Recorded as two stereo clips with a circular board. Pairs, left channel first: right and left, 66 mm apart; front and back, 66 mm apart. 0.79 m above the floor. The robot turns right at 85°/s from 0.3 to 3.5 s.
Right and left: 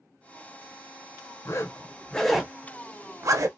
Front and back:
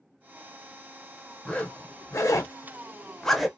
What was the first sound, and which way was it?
A zipper, 75° right.